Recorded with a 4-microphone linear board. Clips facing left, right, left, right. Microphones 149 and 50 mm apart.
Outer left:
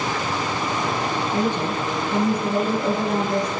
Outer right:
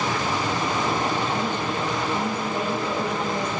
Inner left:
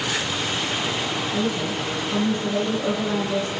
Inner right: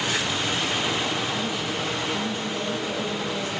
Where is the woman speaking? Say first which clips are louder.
Outer left 3 dB, inner left 3 dB; 75° left (ahead or behind), 6.5 m.